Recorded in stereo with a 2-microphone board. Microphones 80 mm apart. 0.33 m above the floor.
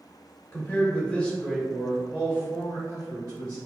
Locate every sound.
0.5 s a man speaking: 30° left (ahead or behind), 1.1 m; by 3.6 s 45° right (ahead or behind), 1.3 m